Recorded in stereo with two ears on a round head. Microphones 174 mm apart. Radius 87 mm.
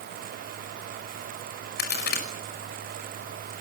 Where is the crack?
55° left (ahead or behind), 5.5 m.